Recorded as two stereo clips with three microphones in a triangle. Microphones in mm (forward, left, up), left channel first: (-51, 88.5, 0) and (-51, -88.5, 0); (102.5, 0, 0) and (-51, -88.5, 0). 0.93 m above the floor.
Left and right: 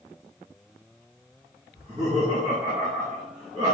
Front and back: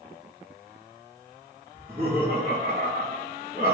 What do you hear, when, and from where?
1.7 s laughter: 130° right, 1.4 m